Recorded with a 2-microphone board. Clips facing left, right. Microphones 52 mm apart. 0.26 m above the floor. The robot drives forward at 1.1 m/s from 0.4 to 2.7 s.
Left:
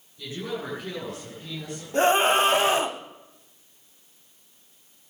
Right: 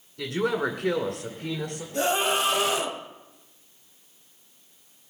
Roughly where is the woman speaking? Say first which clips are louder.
Right 7 dB; right.